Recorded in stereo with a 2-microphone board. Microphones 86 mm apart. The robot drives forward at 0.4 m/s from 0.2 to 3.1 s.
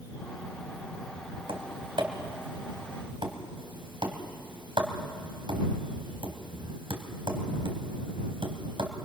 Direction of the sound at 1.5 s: 80° right.